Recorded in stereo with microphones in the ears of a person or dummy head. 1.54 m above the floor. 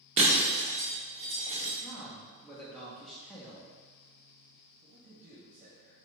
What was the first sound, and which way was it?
Breaking glass, 40° right (ahead or behind).